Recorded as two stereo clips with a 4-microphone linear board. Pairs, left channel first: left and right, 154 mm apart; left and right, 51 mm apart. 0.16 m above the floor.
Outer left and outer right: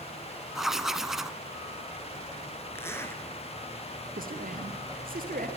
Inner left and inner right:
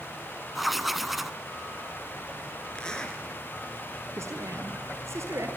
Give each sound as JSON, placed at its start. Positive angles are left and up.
{"t": 0.6, "sound": "writing", "side_deg": 0, "distance_m": 0.8}
{"t": 2.8, "sound": "a zipper", "side_deg": 15, "distance_m": 2.5}
{"t": 4.2, "sound": "a man speaking", "side_deg": -60, "distance_m": 3.0}